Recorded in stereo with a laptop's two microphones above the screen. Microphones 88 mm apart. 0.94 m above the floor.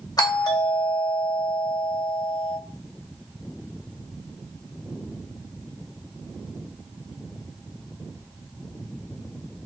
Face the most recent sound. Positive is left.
turn(degrees=45)  # may be behind; listen again after turning